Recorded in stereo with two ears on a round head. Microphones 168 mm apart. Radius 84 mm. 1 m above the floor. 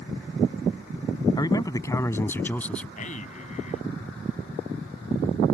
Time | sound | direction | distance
1.4 | a man speaking | 20° left (ahead or behind) | ?
3.0 | a man speaking | 40° left (ahead or behind) | ?